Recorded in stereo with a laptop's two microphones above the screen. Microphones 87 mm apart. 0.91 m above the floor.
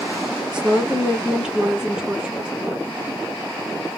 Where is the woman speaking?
10° right (ahead or behind), 1.0 m.